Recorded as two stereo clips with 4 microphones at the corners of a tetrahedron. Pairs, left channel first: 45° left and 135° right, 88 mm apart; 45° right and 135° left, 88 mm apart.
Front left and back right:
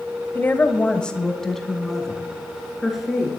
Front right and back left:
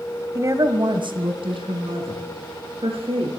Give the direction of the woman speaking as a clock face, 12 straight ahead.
9 o'clock.